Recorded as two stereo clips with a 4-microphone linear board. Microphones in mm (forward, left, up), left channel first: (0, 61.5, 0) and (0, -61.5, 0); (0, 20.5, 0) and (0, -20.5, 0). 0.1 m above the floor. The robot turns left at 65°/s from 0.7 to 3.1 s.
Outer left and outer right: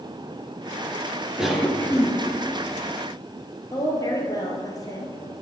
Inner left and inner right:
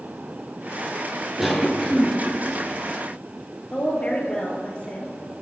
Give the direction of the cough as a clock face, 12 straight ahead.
6 o'clock.